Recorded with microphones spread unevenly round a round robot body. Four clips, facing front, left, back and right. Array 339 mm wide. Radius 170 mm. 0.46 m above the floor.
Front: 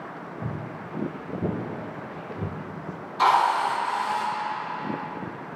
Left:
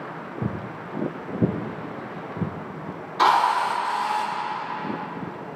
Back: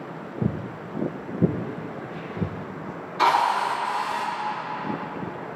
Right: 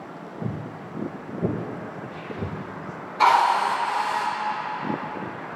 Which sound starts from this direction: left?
A drill, at 3.2 s.